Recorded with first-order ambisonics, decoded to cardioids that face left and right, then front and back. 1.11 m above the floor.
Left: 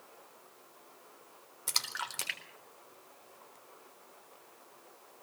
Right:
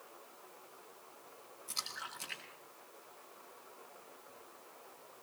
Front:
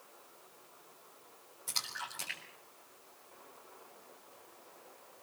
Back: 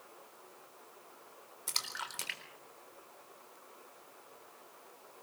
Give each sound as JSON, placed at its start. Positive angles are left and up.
{"t": 1.7, "sound": "a splash", "azimuth_deg": 110, "distance_m": 3.5}